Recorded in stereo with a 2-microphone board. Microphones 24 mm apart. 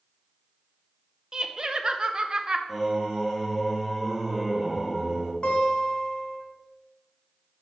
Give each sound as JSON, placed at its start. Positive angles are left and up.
{"t": 1.3, "sound": "laughter", "side_deg": -30, "distance_m": 0.6}
{"t": 2.7, "sound": "singing", "side_deg": -5, "distance_m": 1.1}
{"t": 5.4, "sound": "a guitar", "side_deg": 40, "distance_m": 1.5}